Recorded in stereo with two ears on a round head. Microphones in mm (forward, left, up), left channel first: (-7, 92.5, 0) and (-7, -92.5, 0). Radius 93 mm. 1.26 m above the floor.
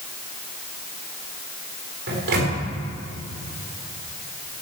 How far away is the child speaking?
No child speaking in this recording.